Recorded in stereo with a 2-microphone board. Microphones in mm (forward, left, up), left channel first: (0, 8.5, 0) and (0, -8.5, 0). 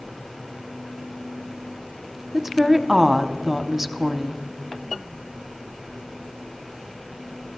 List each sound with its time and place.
2.3 s a woman speaking: 15° right (ahead or behind), 0.9 m